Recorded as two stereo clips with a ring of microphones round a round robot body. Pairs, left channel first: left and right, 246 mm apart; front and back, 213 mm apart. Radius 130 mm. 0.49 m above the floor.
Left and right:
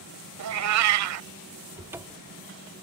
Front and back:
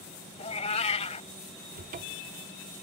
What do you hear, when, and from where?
0.4 s a cat meowing: 65° right
1.8 s a cupboard door: 165° right